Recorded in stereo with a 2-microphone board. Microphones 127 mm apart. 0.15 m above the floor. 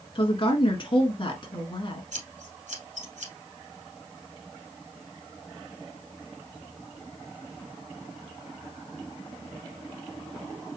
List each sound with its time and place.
0.1 s a woman speaking: 40° left (ahead or behind), 1.4 m
2.1 s scissors: 70° right (ahead or behind), 3 m